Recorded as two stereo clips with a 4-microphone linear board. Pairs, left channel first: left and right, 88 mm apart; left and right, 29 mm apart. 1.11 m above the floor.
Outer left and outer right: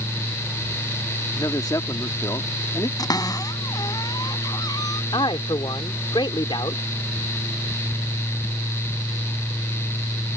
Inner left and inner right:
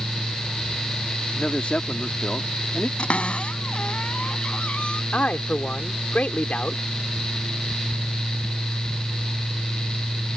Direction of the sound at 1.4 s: 45° left (ahead or behind).